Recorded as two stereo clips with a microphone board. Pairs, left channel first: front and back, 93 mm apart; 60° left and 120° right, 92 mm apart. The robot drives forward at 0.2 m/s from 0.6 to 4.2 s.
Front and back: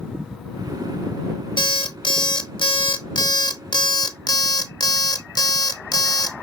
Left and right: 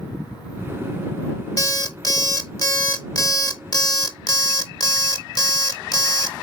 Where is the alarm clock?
15° left, 1.2 m; by 6.3 s 30° left, 0.8 m.